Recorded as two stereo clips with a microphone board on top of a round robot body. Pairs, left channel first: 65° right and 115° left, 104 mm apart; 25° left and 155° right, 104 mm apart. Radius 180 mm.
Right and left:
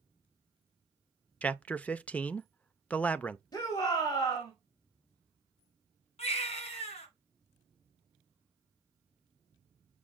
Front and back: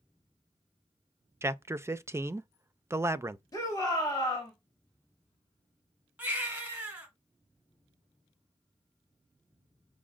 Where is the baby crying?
80° right, 1.3 m.